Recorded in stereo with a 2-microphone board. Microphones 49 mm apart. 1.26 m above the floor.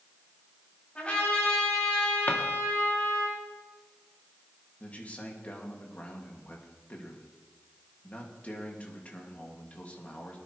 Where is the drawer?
40° left (ahead or behind), 1.6 m.